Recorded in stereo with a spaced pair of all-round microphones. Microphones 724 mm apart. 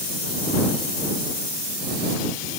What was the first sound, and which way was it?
Only background noise.